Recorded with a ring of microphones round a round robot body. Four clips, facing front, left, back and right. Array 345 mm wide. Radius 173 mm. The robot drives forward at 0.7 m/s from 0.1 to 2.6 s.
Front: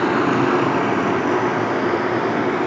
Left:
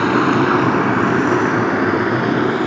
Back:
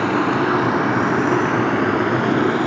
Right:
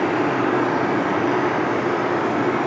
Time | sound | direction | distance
0.0 | running water | 90° left | 1.9 m